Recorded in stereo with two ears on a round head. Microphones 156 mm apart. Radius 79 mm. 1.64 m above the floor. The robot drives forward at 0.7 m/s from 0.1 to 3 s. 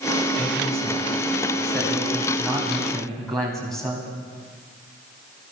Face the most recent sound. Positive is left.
turn(degrees=5)  # may be behind; listen again after turning